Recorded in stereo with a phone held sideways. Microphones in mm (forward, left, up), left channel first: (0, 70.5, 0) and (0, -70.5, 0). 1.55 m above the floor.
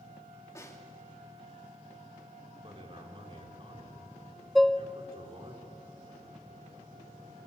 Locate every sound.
0.6 s a snare drum: 20° left (ahead or behind), 3 m
2.6 s a man speaking: 40° right (ahead or behind), 4 m
4.5 s dishes clattering: centre (ahead or behind), 0.6 m